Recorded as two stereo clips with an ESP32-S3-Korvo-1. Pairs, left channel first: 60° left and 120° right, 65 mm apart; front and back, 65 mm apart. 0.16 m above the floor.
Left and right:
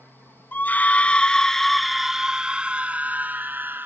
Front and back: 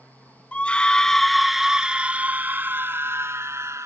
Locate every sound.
0.5 s a scream: 45° left; by 3.9 s 165° right